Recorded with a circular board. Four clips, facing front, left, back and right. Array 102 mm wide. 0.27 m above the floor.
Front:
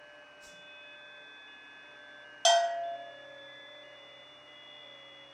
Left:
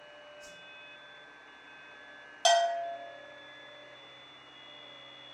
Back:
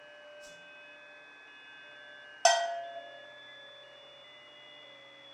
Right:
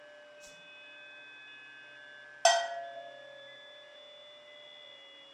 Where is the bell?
140° right, 0.5 m.